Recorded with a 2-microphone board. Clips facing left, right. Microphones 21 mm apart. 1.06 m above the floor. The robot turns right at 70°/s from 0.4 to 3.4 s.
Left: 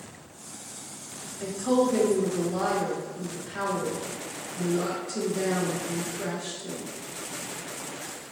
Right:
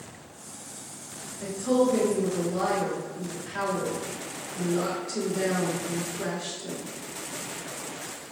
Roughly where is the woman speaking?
Left.